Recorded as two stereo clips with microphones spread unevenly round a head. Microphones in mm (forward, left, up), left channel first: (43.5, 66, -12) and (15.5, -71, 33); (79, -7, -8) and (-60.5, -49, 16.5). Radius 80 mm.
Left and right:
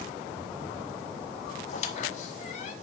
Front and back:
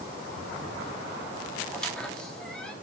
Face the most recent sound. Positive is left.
turn(degrees=115)